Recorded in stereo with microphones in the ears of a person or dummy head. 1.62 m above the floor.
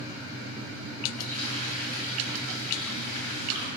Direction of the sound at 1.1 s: 45° right (ahead or behind).